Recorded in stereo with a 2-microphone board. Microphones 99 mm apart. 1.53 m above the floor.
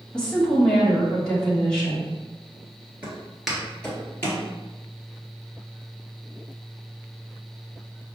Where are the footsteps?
20° right (ahead or behind), 1.5 m; by 4.4 s 25° left (ahead or behind), 2 m.